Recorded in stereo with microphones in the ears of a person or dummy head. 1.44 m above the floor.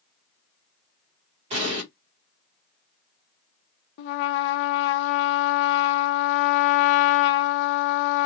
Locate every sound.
1.5 s an explosion: 35° right (ahead or behind), 1.3 m
4.0 s a trumpet: 60° left (ahead or behind), 0.6 m